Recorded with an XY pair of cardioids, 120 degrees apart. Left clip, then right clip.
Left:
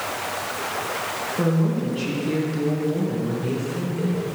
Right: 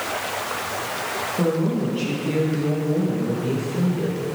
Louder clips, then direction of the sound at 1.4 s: Right 2 dB; 5° left.